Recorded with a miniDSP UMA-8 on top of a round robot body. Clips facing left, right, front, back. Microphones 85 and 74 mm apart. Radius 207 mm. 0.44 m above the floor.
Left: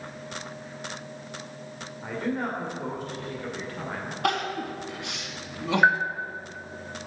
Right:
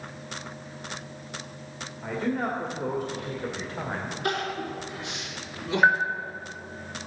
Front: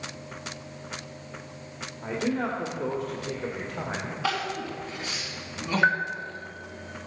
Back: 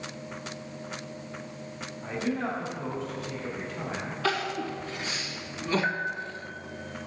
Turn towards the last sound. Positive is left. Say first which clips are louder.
# right 1 dB, front 7 dB
turn(degrees=10)